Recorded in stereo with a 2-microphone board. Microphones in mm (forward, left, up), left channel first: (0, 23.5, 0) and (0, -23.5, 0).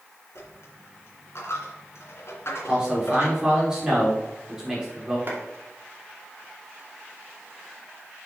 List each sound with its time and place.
0.3 s a dropped coin: 65° left (ahead or behind), 3 m
2.7 s a man speaking: 15° right (ahead or behind), 4 m
5.3 s a clap: 50° right (ahead or behind), 2.5 m